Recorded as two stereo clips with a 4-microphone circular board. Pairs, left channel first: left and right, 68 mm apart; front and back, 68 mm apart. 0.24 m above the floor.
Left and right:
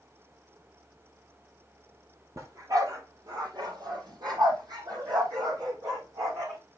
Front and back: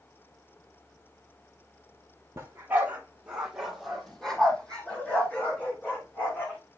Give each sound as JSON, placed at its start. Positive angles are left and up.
{"t": 2.4, "sound": "a dog barking", "azimuth_deg": -130, "distance_m": 1.9}